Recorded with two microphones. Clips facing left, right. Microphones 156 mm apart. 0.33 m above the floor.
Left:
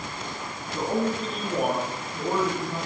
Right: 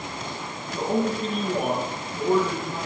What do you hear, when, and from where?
0.7 s a man speaking: 45° right (ahead or behind), 6 m